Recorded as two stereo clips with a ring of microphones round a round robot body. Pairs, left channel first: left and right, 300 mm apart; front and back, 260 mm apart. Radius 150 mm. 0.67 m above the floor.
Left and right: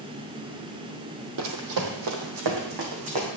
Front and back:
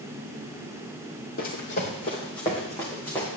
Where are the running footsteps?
60° right, 1.5 m; by 3.3 s 85° right, 2.5 m.